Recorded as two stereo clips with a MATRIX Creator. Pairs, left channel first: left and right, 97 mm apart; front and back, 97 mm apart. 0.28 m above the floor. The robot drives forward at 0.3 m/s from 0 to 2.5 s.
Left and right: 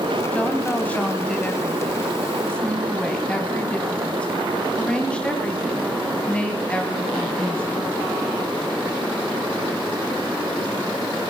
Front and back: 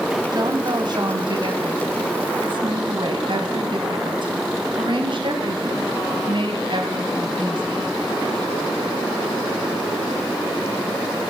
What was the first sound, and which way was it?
A woman speaking, 160° left.